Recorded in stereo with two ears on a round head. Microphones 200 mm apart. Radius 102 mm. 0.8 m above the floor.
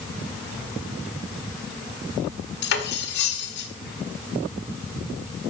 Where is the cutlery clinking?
50° left (ahead or behind), 1.3 m.